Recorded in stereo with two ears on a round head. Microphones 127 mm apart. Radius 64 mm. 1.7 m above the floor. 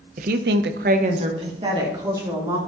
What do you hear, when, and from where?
0.2 s a woman speaking: 55° right (ahead or behind), 0.8 m; by 2.6 s 20° right (ahead or behind), 2.5 m